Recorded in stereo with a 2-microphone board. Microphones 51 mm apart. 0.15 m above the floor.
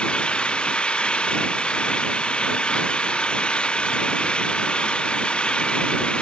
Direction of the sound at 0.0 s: 20° left (ahead or behind).